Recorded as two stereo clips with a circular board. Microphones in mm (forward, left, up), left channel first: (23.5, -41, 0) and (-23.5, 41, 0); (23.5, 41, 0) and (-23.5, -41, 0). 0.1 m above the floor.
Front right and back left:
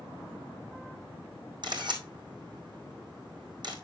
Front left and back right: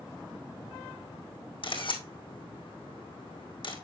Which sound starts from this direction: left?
A camera shutter, at 1.6 s.